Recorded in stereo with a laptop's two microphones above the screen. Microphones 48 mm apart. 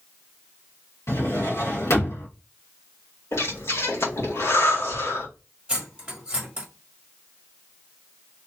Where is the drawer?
80° left, 1.7 m.